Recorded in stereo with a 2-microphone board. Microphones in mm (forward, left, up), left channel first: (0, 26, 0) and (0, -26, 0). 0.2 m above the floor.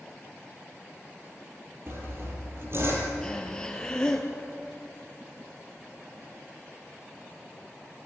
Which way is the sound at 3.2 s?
15° left (ahead or behind).